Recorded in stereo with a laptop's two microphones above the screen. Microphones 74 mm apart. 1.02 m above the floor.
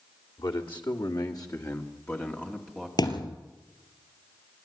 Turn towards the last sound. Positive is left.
turn(degrees=60)  # may be behind; listen again after turning